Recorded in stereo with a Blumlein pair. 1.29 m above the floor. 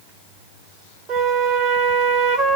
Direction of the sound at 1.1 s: 30° right.